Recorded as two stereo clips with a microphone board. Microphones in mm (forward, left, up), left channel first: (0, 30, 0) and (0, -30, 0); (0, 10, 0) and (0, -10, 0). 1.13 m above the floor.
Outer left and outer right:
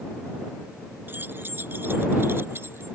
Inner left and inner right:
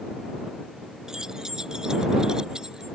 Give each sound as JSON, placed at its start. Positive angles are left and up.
{"t": 1.1, "sound": "keys jangling", "side_deg": -35}